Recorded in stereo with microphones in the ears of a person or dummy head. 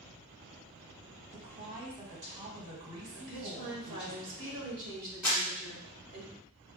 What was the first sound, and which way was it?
A woman speaking, 35° right (ahead or behind).